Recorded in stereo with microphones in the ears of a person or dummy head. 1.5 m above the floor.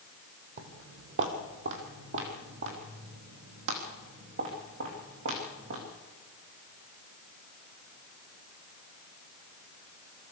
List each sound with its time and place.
0.6 s footsteps: 55° right (ahead or behind), 3 m; by 5.8 s 65° right (ahead or behind), 6 m